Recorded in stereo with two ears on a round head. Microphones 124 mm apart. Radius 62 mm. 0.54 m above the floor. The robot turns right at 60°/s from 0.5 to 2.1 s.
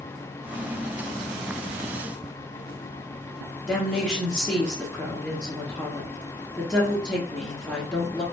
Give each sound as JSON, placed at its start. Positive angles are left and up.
{"t": 3.7, "sound": "a woman speaking", "side_deg": 5, "distance_m": 1.1}